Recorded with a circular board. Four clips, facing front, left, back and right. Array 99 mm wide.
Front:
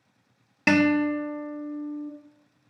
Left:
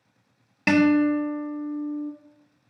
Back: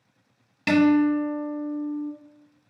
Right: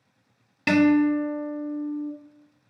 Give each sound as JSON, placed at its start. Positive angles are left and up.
{"t": 0.7, "sound": "a guitar", "azimuth_deg": 30, "distance_m": 0.7}